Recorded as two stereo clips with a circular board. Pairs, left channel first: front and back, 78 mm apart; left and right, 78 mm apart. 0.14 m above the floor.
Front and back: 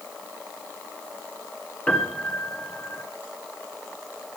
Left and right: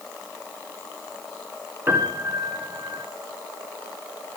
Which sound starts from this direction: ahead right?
A piano, at 1.9 s.